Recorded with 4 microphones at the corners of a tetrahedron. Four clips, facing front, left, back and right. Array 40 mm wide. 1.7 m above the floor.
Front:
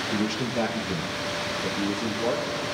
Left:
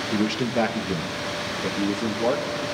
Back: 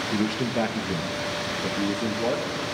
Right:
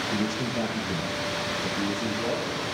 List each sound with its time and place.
0.1 s a man speaking: 110° left, 1.2 m